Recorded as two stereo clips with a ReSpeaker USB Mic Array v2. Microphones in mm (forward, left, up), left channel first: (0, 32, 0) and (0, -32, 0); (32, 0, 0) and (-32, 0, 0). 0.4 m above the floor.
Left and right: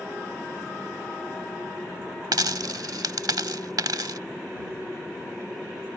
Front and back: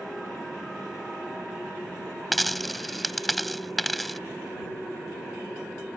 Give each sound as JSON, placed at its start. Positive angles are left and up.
{"t": 2.3, "sound": "a dropped coin", "azimuth_deg": -90}